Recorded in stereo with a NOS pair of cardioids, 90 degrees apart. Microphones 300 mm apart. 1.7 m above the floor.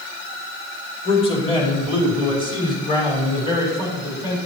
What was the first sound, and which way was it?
A man speaking, 20° left.